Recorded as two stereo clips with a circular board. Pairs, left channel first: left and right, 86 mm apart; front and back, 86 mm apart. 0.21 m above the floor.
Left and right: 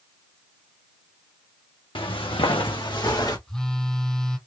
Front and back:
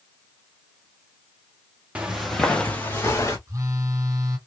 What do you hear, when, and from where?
1.9 s footsteps: 105° left, 1.2 m; by 3.4 s 55° left, 1.9 m
3.5 s a phone buzzing: 170° left, 1.4 m